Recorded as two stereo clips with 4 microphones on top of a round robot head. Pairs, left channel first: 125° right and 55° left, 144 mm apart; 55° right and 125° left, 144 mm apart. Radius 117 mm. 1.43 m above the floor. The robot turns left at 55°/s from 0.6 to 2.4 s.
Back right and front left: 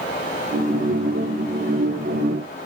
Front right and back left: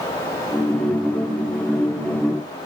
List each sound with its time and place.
Only background noise.